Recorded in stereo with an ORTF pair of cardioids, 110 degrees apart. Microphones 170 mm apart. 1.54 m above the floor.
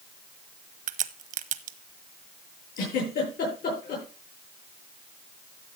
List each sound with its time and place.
0.9 s a crack: 55° right, 1.0 m
2.8 s a giggle: 65° left, 9 m